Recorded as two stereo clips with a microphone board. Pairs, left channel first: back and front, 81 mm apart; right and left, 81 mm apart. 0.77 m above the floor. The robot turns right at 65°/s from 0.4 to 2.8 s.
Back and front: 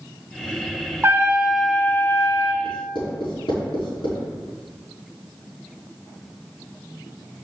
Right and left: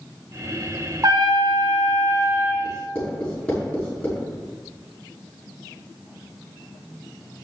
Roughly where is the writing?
Behind.